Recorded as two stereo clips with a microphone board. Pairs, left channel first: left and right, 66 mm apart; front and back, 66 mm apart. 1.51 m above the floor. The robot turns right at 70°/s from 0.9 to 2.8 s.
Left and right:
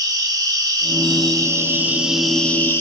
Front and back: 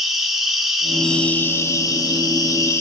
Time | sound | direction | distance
0.0 | an insect | 95° right | 3.5 m